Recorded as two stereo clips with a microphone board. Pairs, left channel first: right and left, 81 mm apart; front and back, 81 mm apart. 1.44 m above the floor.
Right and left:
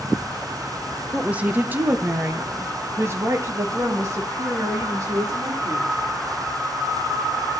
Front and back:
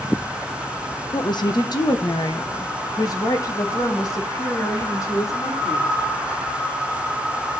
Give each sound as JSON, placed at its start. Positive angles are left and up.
{"t": 1.1, "sound": "a woman speaking", "azimuth_deg": 15, "distance_m": 1.1}